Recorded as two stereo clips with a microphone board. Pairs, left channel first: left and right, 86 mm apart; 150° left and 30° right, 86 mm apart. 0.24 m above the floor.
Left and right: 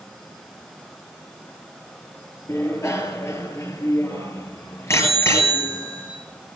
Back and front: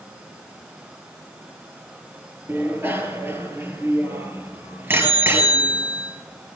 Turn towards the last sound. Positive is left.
turn(degrees=35)